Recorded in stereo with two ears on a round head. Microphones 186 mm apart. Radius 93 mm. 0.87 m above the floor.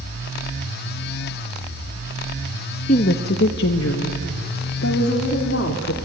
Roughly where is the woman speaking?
Left.